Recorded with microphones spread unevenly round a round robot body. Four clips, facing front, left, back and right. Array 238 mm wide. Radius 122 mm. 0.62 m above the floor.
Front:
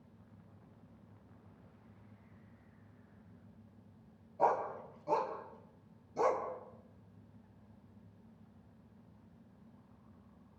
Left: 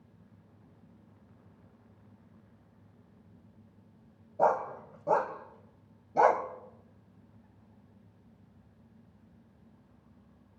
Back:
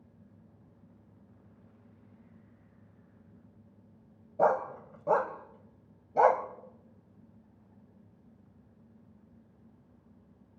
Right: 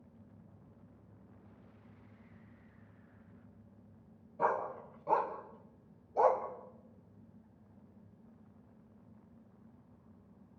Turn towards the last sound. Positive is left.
turn(degrees=115)